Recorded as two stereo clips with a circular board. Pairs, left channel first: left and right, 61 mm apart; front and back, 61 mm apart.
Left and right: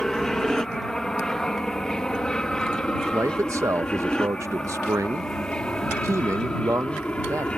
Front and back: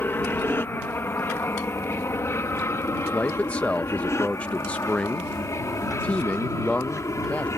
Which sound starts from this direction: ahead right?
A man speaking, at 3.1 s.